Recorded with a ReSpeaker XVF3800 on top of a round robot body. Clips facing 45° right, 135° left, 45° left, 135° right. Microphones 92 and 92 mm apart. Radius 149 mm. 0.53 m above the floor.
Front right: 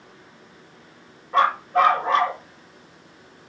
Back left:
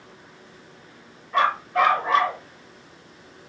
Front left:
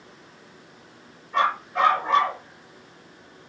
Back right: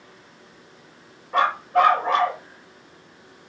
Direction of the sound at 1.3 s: 100° right.